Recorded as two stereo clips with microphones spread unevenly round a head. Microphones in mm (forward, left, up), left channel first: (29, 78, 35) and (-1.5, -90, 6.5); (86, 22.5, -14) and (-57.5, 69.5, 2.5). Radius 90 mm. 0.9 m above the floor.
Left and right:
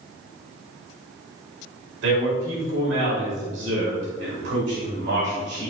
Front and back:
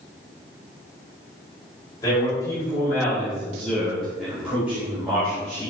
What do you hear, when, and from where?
2.0 s a man speaking: 90° right, 4 m; by 5.7 s 125° right, 4 m